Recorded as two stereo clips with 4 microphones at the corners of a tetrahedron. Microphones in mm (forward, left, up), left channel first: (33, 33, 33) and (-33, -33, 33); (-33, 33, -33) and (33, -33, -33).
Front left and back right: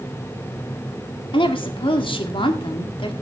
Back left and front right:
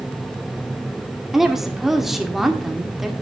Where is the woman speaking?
40° left, 2 m.